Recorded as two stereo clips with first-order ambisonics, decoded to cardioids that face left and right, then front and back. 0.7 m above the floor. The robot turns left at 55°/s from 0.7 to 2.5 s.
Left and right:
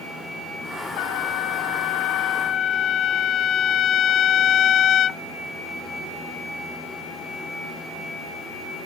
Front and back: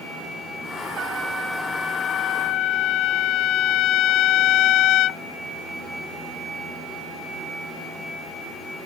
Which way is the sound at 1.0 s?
120° left.